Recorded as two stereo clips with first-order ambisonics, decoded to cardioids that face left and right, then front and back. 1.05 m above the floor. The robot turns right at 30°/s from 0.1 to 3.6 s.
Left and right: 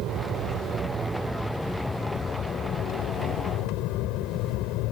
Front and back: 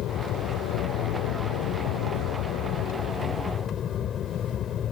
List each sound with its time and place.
0.0 s an aircraft: 45° right; by 4.9 s 60° left